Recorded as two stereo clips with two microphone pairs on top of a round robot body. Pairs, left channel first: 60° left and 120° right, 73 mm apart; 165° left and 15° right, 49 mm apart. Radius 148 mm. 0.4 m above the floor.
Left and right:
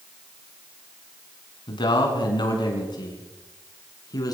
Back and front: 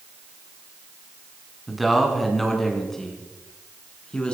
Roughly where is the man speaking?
Left.